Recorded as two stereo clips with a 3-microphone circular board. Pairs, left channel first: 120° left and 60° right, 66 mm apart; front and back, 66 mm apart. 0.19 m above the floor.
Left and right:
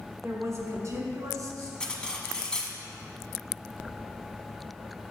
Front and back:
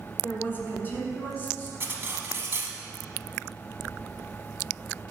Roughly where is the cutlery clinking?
Behind.